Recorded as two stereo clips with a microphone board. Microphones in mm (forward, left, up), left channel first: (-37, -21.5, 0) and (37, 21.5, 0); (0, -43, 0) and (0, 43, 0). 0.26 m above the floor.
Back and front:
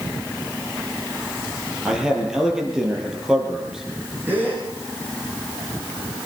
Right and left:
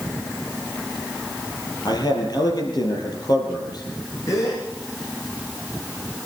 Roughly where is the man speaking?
Ahead right.